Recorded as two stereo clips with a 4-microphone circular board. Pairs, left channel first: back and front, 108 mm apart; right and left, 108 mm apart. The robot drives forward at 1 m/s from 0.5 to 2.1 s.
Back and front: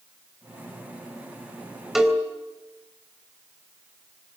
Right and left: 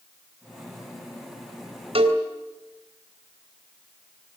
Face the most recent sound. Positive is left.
turn(degrees=90)